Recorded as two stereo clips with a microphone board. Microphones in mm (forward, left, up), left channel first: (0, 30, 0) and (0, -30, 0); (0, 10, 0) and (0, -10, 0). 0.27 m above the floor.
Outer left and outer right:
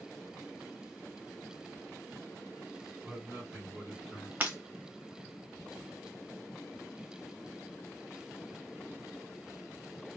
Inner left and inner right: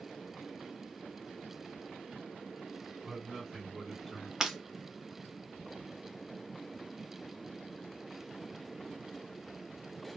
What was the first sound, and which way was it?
A man speaking, 20° right (ahead or behind).